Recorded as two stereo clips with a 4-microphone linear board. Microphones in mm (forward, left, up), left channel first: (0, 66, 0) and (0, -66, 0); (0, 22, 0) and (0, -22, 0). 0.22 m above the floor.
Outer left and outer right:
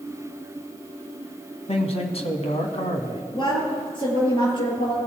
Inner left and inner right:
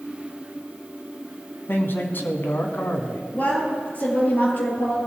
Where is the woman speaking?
35° left (ahead or behind), 4 m.